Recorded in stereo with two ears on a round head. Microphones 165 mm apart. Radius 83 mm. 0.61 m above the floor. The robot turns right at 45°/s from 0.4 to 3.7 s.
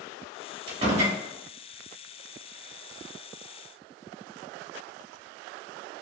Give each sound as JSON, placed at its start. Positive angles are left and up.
{"t": 0.7, "sound": "a door slam", "side_deg": -25, "distance_m": 1.0}